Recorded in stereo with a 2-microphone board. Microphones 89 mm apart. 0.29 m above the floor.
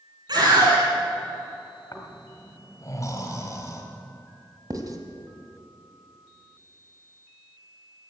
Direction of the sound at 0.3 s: 55° right (ahead or behind).